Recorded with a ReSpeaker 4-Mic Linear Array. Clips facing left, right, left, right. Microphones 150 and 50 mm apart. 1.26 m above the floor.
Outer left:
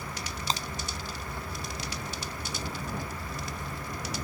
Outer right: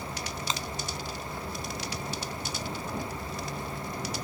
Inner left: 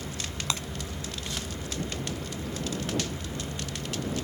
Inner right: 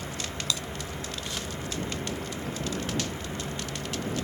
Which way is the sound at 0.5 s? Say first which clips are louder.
Outer left 3 dB, inner left 1 dB; 35° left (ahead or behind).